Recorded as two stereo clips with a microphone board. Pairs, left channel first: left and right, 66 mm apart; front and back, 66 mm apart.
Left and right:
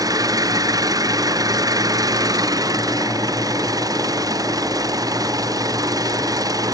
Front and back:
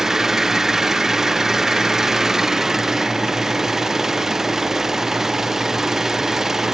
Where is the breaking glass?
No breaking glass in this recording.